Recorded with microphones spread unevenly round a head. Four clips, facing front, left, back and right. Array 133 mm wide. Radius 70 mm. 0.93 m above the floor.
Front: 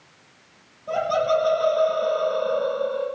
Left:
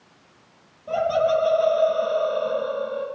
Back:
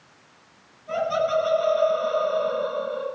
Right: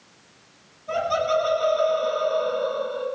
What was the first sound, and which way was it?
Laughter, 40° left.